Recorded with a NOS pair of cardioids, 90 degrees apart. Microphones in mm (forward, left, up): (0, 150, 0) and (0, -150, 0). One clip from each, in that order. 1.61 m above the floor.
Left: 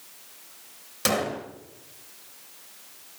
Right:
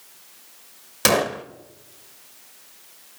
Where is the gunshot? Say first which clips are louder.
Right 6 dB; 45° right, 1.9 m.